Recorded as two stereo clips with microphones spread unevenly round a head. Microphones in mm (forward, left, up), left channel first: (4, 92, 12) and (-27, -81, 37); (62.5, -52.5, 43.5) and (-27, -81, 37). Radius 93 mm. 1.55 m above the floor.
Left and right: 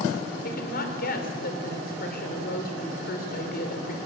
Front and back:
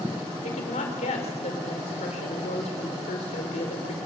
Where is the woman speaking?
35° left, 4.5 m.